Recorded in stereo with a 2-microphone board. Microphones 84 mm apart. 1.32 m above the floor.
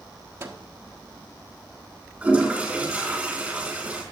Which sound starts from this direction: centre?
A toilet flushing, at 2.2 s.